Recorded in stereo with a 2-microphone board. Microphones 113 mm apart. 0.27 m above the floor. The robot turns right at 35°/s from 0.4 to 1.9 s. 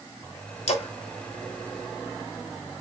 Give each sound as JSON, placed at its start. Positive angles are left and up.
{"t": 0.7, "sound": "a splash", "side_deg": 75, "distance_m": 1.0}